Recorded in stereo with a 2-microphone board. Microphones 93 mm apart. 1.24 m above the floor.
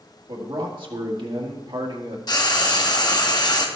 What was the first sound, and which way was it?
A man speaking, 60° right (ahead or behind).